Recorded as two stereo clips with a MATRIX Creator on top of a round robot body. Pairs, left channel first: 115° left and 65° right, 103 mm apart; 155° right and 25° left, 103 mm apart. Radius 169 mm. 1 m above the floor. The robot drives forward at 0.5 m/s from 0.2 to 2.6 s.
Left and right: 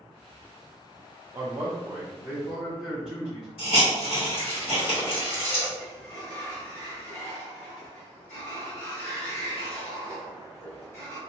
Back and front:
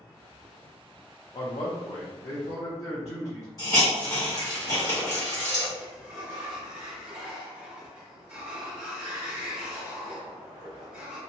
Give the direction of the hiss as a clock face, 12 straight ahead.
7 o'clock.